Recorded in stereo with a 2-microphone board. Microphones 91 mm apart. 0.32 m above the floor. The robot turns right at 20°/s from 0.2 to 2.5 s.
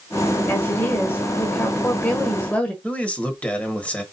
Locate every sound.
0.5 s a woman speaking: 25° left (ahead or behind), 1.1 m; by 2.7 s 15° left (ahead or behind), 1.1 m
2.8 s a man speaking: 15° left (ahead or behind), 1.1 m